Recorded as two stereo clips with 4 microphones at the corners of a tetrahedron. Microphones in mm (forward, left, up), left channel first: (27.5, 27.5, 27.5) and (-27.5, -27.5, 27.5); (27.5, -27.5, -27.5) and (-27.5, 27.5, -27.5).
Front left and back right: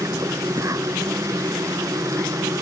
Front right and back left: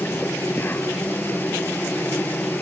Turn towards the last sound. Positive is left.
turn(degrees=-105)